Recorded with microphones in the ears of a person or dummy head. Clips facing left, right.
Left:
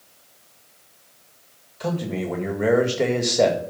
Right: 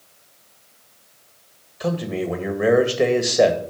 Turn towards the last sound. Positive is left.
turn(degrees=-5)  # may be behind; listen again after turning